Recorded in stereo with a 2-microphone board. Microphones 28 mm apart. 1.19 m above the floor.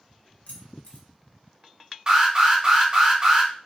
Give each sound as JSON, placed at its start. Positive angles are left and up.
{"t": 0.5, "sound": "keys jangling", "side_deg": 65, "distance_m": 0.8}
{"t": 2.1, "sound": "an alarm", "side_deg": -30, "distance_m": 1.3}